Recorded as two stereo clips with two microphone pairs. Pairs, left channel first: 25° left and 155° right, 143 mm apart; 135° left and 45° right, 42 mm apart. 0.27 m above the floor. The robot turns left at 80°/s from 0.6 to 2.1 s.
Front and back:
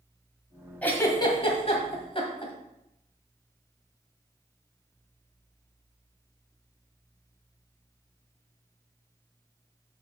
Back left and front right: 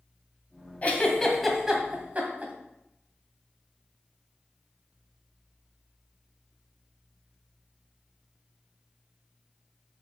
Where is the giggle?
100° left, 1.6 m; by 2.5 s 5° right, 1.6 m.